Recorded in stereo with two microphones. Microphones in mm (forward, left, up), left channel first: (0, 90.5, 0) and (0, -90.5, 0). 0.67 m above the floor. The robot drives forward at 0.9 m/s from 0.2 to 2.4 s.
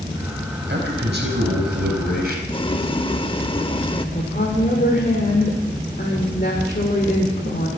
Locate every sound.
0.7 s a man speaking: 70° right (ahead or behind), 4 m; by 2.4 s 55° right (ahead or behind), 5 m
2.5 s boiling: 30° left (ahead or behind), 0.7 m
4.2 s a woman speaking: 55° left (ahead or behind), 2.5 m